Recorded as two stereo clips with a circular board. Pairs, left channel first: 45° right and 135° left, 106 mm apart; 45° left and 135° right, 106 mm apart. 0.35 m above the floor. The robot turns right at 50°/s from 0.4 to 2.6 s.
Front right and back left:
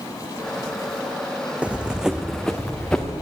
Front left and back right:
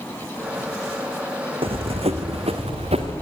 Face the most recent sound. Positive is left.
turn(degrees=-130)